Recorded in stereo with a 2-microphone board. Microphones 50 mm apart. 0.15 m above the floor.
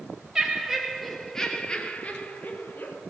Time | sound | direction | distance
0.3 | laughter | 10° right (ahead or behind) | 3 m